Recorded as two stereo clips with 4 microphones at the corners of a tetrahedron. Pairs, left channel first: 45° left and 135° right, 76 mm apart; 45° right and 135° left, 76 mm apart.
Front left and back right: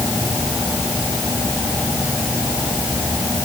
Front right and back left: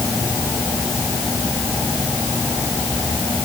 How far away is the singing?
I don't hear singing.